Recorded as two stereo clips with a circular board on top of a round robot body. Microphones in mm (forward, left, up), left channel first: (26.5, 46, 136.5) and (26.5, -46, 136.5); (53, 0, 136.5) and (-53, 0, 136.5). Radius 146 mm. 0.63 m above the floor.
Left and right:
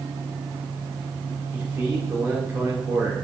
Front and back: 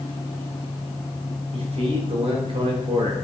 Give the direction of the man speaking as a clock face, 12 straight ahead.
5 o'clock.